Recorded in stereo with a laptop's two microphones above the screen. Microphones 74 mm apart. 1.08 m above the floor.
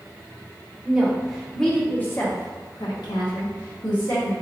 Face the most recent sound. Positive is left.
turn(degrees=70)  # may be behind; listen again after turning